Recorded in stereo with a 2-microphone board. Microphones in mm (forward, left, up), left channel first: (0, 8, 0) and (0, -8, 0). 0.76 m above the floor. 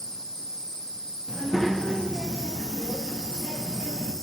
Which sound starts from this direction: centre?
A child speaking, at 1.3 s.